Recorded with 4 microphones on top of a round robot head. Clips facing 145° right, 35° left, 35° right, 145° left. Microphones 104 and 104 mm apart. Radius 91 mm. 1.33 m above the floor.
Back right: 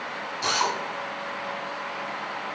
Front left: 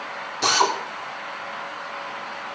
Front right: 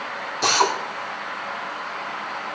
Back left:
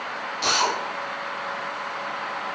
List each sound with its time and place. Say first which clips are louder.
0.4 s a drill: front left 5 dB, front right 4 dB; 10° left, 4 m